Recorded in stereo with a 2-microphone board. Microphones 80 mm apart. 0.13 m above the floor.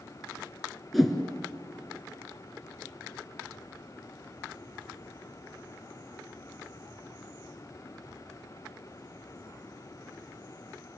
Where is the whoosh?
Centre (ahead or behind), 2.5 m.